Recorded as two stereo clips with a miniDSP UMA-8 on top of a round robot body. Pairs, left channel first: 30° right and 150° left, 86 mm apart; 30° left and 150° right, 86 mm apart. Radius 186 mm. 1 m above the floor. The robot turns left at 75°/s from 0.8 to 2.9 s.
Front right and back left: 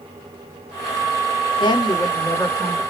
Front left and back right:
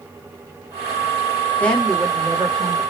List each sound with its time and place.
1.6 s a woman speaking: 40° right, 0.9 m; by 2.8 s 130° right, 0.9 m